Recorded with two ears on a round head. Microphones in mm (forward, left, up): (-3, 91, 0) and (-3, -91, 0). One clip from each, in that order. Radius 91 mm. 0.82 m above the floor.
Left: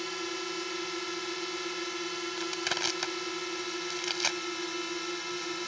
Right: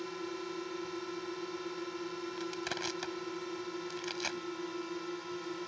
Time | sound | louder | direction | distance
0.0 | a drone | left 6 dB | 70° left (ahead or behind) | ?
2.4 | crushing | left 7 dB | 40° left (ahead or behind) | ?